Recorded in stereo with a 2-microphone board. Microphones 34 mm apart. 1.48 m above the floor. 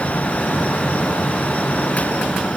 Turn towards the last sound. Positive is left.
No sound to turn to.